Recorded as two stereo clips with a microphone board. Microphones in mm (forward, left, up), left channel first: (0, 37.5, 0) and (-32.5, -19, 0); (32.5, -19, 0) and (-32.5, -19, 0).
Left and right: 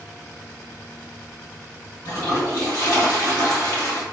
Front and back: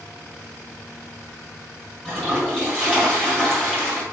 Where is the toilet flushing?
80° left, 1.4 m.